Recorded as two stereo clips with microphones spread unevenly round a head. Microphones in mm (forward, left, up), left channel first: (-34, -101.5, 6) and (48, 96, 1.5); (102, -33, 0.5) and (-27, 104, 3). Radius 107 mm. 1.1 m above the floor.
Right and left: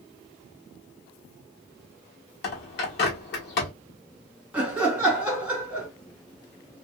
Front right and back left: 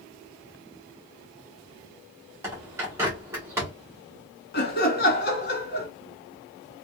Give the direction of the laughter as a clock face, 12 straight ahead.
1 o'clock.